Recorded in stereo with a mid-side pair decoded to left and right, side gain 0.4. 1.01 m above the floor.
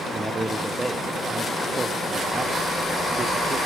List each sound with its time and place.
0.1 s a man speaking: 20° right, 1.0 m